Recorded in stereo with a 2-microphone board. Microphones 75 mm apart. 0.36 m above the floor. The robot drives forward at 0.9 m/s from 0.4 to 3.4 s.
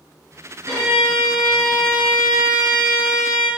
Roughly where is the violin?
Right.